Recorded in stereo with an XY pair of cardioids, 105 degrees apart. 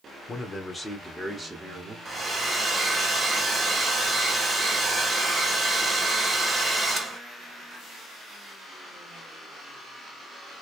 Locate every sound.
0.3 s a man speaking: 35° left, 1.0 m; by 1.9 s 25° right, 1.4 m
2.0 s a hair dryer: 30° right, 1.8 m